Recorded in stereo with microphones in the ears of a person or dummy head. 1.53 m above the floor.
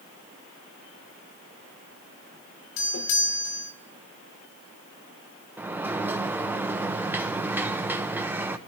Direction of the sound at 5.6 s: 5° right (ahead or behind).